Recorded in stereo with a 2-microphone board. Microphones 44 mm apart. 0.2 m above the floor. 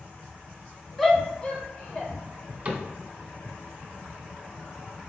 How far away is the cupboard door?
About 1.0 m.